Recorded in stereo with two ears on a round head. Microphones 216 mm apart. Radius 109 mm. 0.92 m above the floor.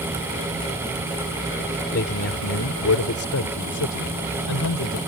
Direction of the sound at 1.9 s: 50° left (ahead or behind).